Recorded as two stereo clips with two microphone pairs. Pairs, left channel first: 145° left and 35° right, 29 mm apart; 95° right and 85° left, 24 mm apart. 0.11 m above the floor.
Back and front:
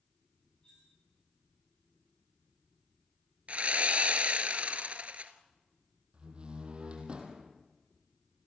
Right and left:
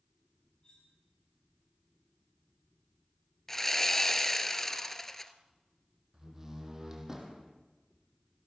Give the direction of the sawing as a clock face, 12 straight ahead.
1 o'clock.